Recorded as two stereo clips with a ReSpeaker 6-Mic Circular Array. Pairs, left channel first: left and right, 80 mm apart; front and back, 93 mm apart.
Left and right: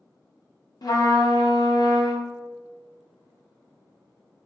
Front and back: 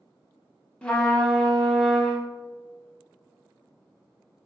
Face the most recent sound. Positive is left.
turn(degrees=80)